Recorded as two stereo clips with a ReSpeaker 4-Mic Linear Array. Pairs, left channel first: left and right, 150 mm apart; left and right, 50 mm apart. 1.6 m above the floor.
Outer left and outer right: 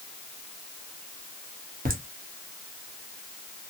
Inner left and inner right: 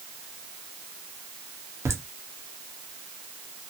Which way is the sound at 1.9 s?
80° right.